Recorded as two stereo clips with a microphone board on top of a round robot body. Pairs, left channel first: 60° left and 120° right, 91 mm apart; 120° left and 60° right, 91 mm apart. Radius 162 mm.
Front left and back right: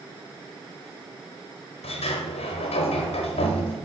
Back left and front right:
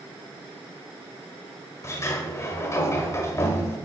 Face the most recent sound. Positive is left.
turn(degrees=60)